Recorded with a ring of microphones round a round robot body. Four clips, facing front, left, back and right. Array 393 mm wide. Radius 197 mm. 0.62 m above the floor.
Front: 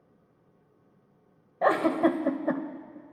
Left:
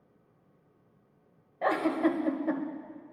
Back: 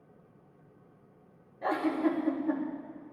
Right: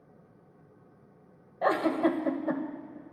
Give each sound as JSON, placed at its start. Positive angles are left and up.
{"t": 1.6, "sound": "a giggle", "azimuth_deg": -15, "distance_m": 1.0}